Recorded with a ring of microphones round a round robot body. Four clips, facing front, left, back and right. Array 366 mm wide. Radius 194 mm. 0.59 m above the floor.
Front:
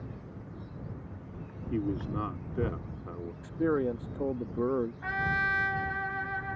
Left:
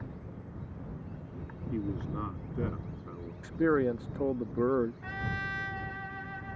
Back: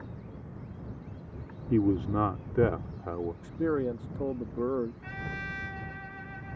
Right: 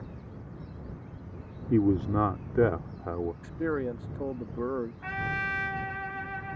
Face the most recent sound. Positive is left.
turn(degrees=-30)